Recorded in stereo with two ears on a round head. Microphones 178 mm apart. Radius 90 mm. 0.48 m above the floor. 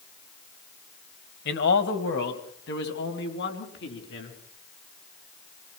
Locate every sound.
1.4 s a man speaking: 60° left (ahead or behind), 2 m; by 4.4 s 65° left (ahead or behind), 5.5 m